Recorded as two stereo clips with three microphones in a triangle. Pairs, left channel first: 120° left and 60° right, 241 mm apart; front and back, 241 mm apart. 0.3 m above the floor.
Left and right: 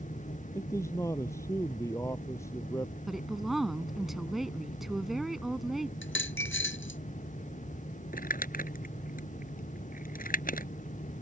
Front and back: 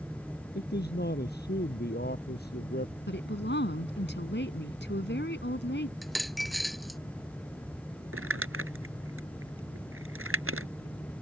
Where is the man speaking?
40° left.